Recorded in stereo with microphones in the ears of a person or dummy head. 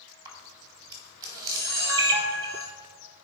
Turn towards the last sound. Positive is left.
turn(degrees=-25)  # may be behind; listen again after turning